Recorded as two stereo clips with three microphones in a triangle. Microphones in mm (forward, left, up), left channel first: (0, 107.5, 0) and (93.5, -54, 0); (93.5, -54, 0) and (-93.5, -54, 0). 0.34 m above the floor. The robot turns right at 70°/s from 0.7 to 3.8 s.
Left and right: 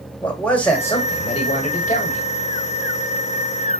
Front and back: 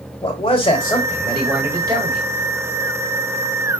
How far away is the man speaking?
About 1.5 m.